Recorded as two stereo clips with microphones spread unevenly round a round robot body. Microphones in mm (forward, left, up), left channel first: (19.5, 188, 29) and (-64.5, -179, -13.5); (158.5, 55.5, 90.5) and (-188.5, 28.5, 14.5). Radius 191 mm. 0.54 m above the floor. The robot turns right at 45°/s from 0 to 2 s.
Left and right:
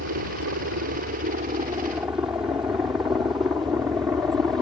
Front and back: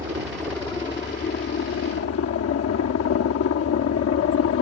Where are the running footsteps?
No running footsteps in this recording.